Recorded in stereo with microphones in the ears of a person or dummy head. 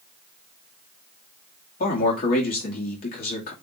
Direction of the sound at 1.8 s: 45° left (ahead or behind).